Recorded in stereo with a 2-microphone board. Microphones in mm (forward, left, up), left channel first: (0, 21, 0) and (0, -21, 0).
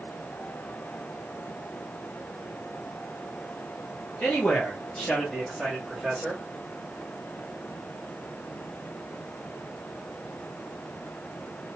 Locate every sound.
4.2 s a man speaking: 35° left (ahead or behind), 0.9 m; by 6.4 s 10° right (ahead or behind), 1.2 m